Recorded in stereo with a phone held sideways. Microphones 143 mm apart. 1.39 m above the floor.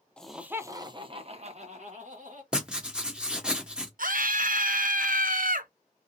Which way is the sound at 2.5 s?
5° right (ahead or behind).